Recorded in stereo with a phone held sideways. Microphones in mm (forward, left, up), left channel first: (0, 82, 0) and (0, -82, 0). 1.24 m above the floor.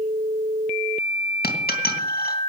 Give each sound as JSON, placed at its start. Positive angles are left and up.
{"t": 1.4, "sound": "a dropped coin", "side_deg": 70, "distance_m": 2.5}